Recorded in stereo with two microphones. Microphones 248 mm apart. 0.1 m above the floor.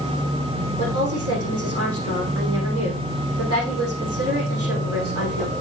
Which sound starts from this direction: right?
A woman speaking, at 0.8 s.